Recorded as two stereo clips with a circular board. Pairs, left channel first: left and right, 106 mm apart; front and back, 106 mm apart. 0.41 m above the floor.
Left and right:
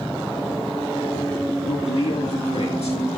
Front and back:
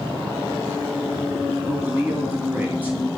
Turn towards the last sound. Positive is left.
turn(degrees=105)